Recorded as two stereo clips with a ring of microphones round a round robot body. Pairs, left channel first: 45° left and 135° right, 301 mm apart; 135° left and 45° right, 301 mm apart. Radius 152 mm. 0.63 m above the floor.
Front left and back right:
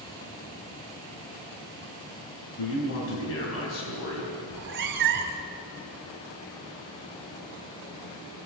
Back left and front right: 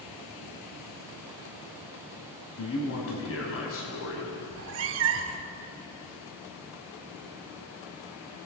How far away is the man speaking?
About 4.5 m.